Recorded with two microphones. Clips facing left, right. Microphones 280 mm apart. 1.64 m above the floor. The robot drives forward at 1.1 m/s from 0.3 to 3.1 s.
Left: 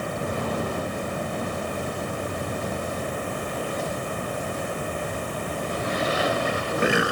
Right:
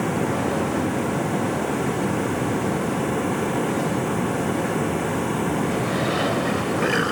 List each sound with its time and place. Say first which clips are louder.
0.0 s running water: right 6 dB; 85° right; by 7.1 s 80° right